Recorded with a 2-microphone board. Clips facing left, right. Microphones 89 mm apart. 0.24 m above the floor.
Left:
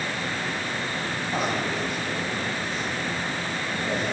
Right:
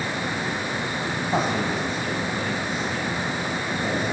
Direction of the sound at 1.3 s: 30° right (ahead or behind).